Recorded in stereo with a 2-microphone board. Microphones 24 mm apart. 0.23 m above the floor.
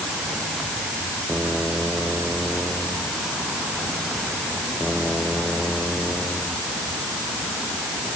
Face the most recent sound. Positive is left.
No sound to turn to.